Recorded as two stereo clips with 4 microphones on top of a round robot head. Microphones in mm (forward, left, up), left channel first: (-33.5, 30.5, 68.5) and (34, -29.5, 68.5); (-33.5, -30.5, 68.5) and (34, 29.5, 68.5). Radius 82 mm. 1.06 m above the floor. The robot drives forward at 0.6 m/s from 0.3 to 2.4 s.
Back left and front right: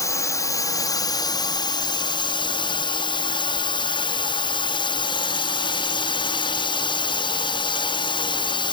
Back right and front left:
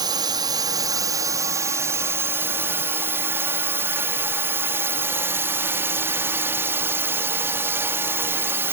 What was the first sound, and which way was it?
A drone, 85° left.